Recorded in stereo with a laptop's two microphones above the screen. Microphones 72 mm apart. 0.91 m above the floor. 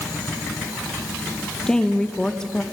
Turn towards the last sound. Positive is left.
turn(degrees=10)  # may be behind; listen again after turning